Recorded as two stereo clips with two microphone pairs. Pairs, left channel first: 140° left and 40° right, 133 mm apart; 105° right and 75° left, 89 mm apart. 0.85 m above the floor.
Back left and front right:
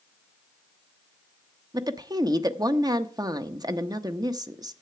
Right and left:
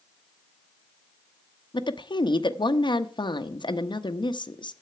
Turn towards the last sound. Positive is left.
turn(degrees=-95)